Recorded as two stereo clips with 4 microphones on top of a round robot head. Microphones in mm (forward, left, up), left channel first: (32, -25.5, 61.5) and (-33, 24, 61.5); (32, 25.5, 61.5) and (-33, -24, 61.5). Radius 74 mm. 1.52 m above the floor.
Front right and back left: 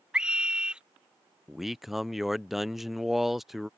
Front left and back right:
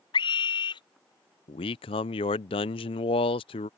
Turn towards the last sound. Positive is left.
turn(degrees=55)